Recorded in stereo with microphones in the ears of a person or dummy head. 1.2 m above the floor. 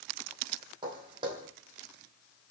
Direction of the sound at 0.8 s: 25° right (ahead or behind).